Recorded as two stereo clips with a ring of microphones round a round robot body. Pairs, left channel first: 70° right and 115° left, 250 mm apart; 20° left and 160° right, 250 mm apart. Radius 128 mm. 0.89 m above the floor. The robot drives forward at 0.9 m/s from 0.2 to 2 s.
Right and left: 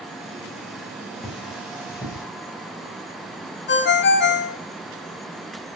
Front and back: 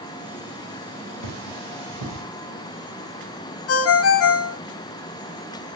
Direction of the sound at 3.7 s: 15° right.